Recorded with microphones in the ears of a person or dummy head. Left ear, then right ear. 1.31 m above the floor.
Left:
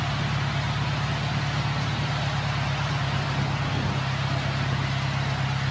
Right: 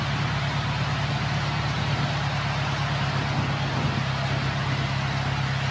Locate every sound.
0.0 s an engine running: 35° left (ahead or behind)